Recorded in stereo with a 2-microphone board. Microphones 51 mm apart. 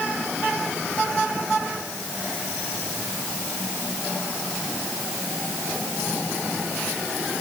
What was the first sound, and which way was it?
Only background noise.